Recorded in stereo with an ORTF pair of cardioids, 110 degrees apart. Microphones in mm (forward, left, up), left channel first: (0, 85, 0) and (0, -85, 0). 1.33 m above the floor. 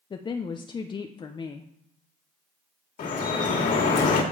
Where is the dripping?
55° left, 2.5 m.